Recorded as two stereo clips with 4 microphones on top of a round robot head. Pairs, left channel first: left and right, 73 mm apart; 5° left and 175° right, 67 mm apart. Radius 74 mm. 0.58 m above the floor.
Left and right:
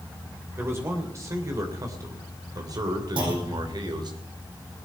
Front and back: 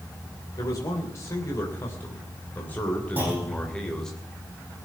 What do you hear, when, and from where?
0.6 s a man speaking: 35° right, 3 m; by 4.2 s 80° right, 3 m
3.2 s a clunk: 105° right, 5 m